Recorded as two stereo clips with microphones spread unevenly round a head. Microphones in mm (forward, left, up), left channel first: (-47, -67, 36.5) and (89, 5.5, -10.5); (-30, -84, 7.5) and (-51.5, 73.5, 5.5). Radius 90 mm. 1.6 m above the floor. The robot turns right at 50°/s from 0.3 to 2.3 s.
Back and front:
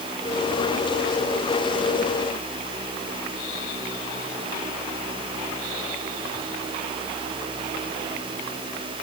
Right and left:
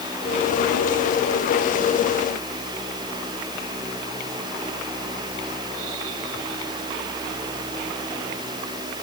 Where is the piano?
No piano in this recording.